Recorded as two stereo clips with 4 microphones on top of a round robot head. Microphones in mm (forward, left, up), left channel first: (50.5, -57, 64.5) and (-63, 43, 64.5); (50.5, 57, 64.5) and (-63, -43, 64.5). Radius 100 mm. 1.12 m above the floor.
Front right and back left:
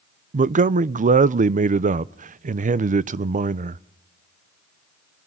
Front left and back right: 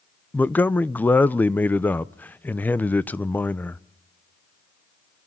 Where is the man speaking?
120° left, 0.6 m.